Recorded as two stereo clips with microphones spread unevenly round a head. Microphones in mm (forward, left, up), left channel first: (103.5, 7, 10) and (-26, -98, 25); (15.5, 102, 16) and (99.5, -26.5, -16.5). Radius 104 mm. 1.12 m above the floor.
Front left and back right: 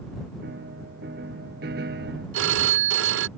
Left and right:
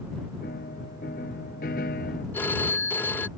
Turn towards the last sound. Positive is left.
turn(degrees=-155)